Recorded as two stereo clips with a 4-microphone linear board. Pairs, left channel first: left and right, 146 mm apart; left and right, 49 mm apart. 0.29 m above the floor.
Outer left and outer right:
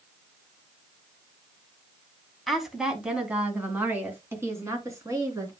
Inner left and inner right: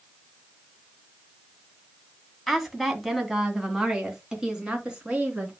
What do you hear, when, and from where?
2.5 s a woman speaking: centre (ahead or behind), 2 m; by 5.5 s 25° right (ahead or behind), 3.5 m